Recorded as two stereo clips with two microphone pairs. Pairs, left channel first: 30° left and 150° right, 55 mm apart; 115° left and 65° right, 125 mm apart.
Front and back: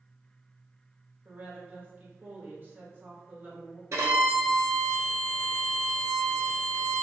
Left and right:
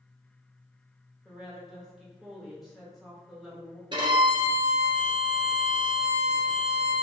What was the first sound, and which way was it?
A woman speaking, 155° right.